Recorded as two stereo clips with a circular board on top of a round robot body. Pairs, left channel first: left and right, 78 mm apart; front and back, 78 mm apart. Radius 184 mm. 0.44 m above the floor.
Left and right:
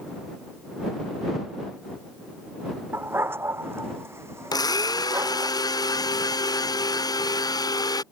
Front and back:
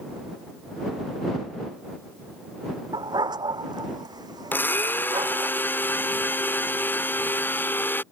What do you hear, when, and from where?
2.9 s a dog barking: 150° right; by 5.5 s 140° right
4.5 s a blender: 60° left